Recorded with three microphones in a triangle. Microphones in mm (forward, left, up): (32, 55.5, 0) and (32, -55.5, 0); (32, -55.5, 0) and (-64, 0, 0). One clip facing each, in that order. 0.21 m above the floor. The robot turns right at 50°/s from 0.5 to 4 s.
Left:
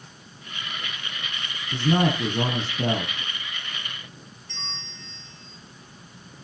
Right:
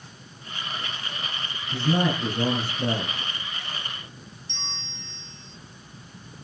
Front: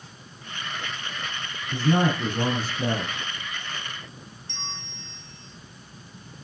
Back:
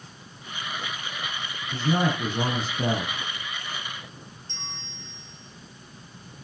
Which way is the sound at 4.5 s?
25° right.